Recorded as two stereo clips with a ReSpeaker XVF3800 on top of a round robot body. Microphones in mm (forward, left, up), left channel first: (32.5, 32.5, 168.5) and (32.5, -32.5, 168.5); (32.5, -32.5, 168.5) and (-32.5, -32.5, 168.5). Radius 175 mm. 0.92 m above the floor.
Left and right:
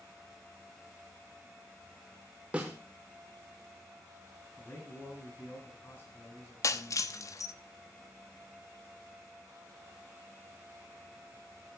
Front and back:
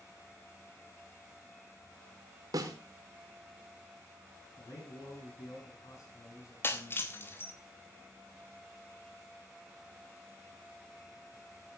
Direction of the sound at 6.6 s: 55° left.